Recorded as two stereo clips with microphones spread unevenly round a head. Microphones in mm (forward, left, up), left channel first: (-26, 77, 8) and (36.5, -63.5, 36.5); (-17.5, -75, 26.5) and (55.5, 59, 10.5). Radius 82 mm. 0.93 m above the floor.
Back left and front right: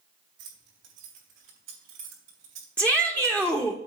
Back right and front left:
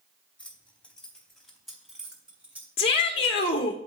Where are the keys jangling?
40° right, 4 m; by 2.7 s 20° right, 3 m.